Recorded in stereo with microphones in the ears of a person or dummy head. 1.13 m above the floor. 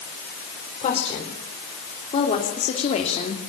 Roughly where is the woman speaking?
Left.